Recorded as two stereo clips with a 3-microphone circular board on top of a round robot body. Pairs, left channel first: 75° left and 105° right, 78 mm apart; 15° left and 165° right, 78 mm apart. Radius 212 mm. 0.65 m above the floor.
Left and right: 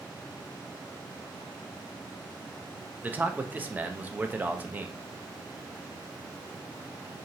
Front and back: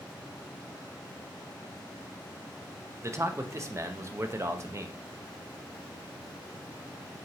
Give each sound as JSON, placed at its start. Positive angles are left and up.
{"t": 3.0, "sound": "a man speaking", "azimuth_deg": -155, "distance_m": 0.6}